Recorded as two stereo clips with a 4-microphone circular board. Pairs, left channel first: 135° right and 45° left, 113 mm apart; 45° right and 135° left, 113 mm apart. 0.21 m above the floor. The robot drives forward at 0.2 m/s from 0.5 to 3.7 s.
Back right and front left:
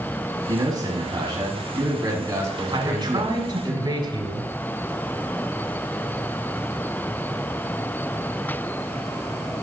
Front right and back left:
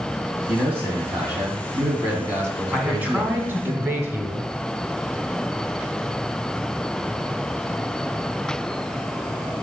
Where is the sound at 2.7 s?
60° left, 1.6 m; by 4.5 s 70° left, 1.5 m.